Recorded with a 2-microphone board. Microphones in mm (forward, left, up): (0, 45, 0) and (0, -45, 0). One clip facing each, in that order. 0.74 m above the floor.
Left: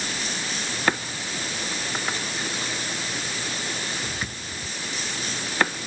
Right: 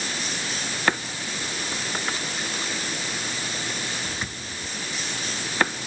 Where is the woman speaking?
I don't hear a woman speaking.